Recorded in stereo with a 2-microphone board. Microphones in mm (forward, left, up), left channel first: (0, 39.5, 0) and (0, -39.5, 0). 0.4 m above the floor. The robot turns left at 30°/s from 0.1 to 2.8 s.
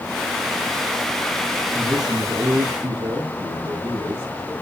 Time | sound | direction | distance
1.8 | a man speaking | 55° right | 3.5 m